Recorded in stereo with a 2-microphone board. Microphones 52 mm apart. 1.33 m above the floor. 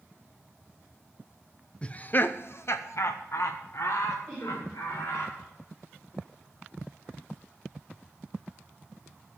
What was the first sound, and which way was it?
Laughter, 20° left (ahead or behind).